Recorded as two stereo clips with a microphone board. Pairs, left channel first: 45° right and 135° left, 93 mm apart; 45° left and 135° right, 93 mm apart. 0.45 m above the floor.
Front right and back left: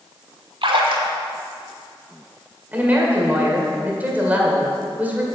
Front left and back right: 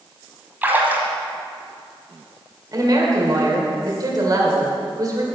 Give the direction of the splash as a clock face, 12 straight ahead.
7 o'clock.